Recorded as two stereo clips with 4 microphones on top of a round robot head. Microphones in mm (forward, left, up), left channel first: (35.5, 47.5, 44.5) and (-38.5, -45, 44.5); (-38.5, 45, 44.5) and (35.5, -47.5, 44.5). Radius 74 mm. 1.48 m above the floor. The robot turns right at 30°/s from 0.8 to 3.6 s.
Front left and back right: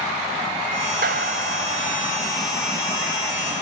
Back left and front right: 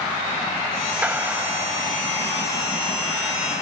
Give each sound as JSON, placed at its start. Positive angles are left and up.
{"t": 1.0, "sound": "a clap", "azimuth_deg": -130}